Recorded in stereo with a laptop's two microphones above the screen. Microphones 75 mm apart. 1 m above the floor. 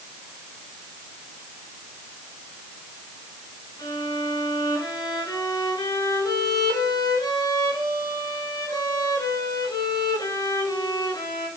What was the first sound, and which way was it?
A violin, 80° left.